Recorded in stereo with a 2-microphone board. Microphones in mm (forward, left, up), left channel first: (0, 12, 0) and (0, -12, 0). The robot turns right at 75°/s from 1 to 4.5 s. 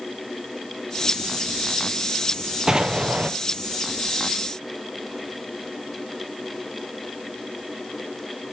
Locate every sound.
2.7 s an explosion: 150° right, 0.7 m; by 3.3 s 100° right, 0.7 m